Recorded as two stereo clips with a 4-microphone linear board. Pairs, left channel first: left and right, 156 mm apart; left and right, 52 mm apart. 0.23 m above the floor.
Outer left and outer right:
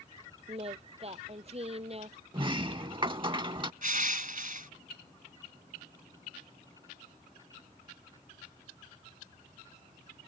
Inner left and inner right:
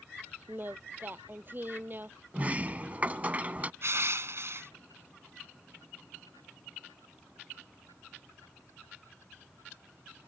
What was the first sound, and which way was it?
Singing, 40° right (ahead or behind).